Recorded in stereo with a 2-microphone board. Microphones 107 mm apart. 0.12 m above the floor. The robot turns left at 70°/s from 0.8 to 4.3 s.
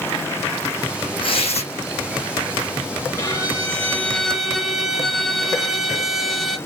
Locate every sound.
1.2 s tearing paper: 125° left, 0.9 m; by 1.7 s 90° left, 0.9 m
3.2 s a violin: 30° left (ahead or behind), 1.4 m; by 6.6 s 5° left (ahead or behind), 1.4 m